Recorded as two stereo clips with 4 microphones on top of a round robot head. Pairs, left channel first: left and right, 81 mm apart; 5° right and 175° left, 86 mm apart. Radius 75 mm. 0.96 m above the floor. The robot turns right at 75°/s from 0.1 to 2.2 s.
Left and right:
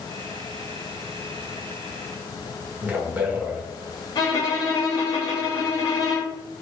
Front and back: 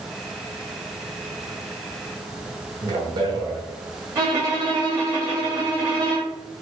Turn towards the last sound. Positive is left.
turn(degrees=130)